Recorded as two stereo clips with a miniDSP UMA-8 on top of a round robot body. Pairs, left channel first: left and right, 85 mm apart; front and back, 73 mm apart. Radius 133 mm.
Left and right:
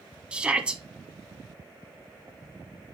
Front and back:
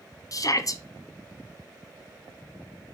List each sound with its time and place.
0.3 s a shout: 15° right, 0.8 m